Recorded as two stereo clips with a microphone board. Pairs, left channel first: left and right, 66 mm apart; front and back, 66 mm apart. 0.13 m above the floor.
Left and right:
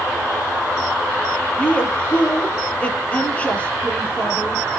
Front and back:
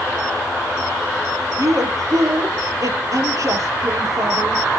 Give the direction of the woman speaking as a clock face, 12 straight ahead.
7 o'clock.